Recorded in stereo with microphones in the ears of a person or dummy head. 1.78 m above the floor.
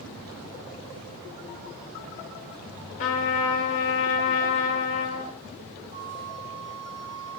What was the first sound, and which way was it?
A trumpet, 35° left (ahead or behind).